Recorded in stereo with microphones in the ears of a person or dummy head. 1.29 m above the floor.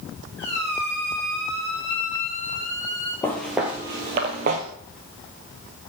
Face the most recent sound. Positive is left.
turn(degrees=-45)  # may be behind; listen again after turning